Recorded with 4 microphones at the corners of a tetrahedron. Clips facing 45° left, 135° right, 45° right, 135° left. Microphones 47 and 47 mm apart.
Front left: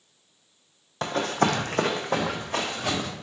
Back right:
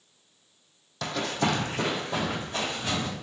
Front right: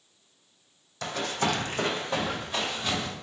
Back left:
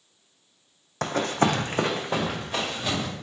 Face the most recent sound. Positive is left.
turn(degrees=60)